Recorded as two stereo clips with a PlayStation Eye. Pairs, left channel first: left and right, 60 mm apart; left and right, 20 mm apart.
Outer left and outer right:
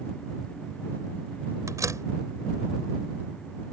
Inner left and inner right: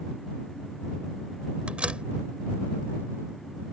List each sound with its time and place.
1.7 s a door slam: 75° right (ahead or behind)